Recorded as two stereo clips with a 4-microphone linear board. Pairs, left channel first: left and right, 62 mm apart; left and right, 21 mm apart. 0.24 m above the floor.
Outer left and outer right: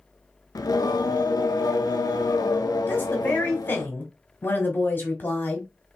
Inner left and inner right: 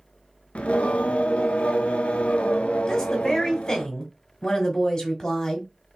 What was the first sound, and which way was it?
Singing, 85° left.